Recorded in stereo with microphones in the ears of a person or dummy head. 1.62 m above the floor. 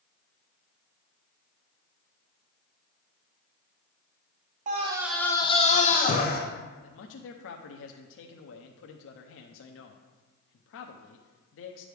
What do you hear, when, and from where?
4.7 s a scream: 45° right (ahead or behind), 0.5 m; by 6.4 s 45° left (ahead or behind), 1.2 m
6.8 s a man speaking: 70° left (ahead or behind), 0.7 m